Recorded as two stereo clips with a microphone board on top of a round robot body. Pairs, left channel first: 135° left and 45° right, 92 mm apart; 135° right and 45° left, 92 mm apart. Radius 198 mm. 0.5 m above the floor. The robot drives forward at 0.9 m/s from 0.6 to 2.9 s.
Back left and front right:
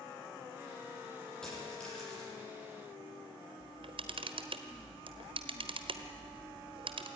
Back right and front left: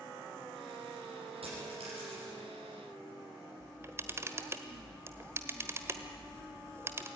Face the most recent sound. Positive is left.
turn(degrees=-20)